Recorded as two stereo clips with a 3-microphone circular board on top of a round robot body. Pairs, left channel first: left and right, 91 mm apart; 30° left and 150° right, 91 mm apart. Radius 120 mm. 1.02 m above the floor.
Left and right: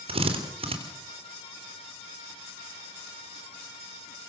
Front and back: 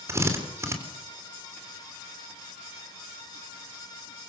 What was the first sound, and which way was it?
A drill, 90° right.